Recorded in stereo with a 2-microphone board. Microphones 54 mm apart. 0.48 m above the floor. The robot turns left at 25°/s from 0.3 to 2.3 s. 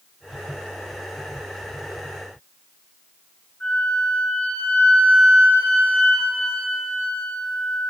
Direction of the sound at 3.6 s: 20° left (ahead or behind).